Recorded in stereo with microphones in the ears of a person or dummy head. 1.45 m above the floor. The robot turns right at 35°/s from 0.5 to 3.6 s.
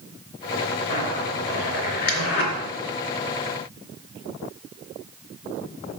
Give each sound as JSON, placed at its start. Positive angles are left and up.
{"t": 0.9, "sound": "a zipper", "side_deg": 55, "distance_m": 3.0}